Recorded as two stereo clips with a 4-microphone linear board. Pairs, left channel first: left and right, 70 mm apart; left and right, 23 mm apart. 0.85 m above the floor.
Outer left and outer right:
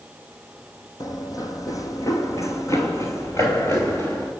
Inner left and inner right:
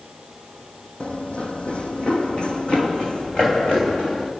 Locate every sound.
1.0 s running footsteps: 65° left (ahead or behind), 2 m; by 4.3 s 40° left (ahead or behind), 4 m